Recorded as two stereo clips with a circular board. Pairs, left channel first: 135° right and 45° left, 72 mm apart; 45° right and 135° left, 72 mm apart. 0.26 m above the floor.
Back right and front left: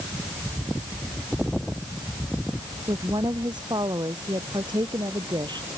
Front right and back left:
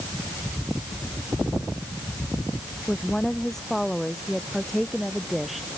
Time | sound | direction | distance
2.9 | a woman speaking | 40° left | ?